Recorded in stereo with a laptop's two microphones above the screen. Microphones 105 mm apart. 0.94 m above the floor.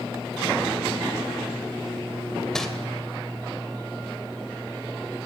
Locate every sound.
2.5 s crumpling: 5° left (ahead or behind), 3 m